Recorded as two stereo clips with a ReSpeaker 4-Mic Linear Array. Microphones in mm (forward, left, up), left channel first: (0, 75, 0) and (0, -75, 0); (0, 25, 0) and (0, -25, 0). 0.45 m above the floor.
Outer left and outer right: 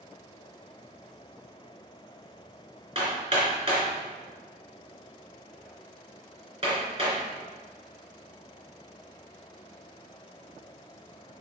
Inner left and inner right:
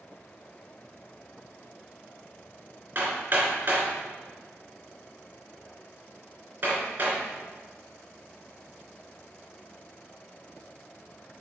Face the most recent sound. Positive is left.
turn(degrees=-40)  # may be behind; listen again after turning